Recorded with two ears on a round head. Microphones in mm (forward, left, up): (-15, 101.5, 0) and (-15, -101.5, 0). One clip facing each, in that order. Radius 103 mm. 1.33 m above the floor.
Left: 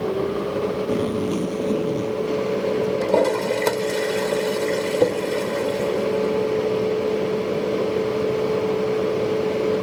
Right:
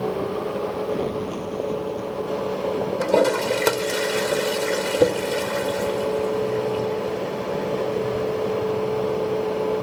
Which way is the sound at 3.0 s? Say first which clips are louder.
Right 3 dB; 5° right (ahead or behind).